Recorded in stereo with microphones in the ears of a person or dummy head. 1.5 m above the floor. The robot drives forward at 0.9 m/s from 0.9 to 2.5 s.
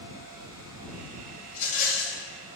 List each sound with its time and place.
1.5 s a rattle: 35° left (ahead or behind), 1.2 m; by 2.2 s 60° left (ahead or behind), 0.8 m